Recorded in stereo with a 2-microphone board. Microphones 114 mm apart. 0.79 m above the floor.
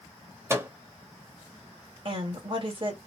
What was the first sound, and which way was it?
A microwave, 25° right (ahead or behind).